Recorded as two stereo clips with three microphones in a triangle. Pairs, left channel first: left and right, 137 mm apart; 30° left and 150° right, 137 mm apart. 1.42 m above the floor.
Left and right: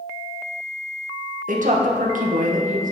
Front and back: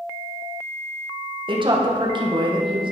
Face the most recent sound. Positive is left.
turn(degrees=-100)